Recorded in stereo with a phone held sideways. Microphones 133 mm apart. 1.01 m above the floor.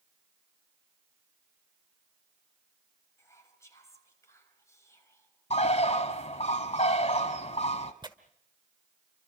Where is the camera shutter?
I don't hear a camera shutter.